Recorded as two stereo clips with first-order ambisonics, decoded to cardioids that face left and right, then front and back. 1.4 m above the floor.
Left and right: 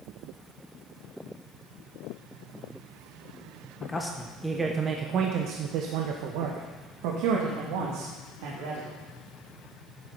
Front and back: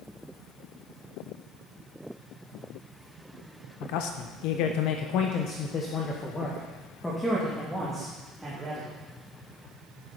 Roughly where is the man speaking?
Ahead.